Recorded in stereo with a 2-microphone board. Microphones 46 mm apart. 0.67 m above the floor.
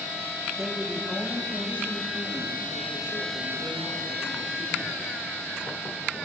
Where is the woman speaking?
5° left (ahead or behind), 1.3 m; by 5.2 s 55° left (ahead or behind), 3.5 m.